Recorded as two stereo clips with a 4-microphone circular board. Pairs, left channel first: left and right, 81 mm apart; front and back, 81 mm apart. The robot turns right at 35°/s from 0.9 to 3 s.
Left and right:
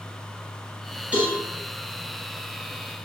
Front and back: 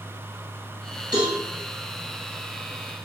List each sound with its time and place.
1.1 s a cowbell: 165° right, 1.9 m; by 1.4 s 155° right, 1.9 m